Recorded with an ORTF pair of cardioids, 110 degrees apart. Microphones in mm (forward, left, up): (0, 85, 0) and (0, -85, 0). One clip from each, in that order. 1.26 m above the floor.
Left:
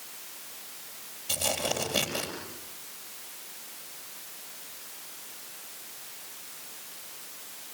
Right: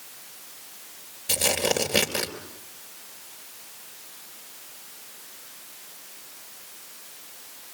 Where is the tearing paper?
60° right, 4 m.